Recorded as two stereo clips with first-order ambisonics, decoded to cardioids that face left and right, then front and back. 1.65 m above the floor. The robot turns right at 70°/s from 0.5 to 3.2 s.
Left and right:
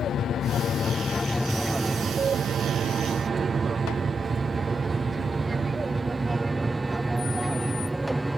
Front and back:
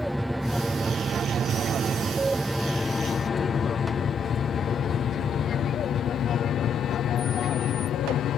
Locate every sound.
0.0 s an aircraft: 95° left; by 8.4 s 10° right